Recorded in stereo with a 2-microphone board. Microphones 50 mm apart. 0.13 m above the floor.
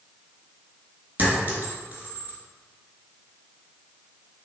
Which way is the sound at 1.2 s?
35° right (ahead or behind).